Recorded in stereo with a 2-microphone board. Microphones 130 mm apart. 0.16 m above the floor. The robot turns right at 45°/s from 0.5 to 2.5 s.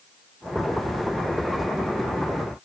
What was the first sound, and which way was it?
Only background noise.